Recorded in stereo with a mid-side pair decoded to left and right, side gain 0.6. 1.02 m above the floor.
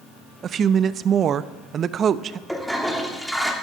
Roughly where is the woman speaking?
Ahead right.